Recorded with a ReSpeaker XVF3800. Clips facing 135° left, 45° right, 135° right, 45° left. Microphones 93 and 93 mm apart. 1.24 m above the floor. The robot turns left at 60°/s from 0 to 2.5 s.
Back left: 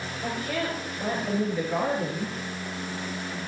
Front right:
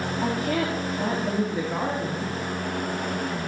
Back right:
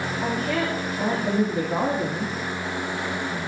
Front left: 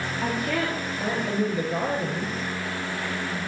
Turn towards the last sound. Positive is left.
turn(degrees=-170)